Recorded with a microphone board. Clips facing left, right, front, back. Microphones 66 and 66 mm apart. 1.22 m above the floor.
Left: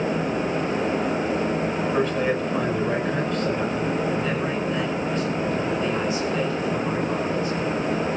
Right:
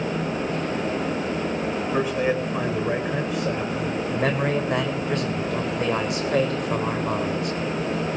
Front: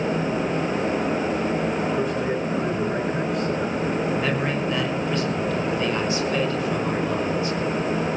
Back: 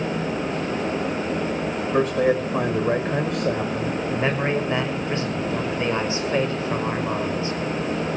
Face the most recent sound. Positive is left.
turn(degrees=-120)